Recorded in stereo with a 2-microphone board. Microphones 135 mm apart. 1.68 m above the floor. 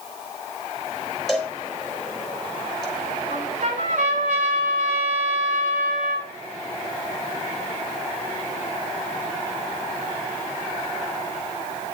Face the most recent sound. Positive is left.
turn(degrees=-85)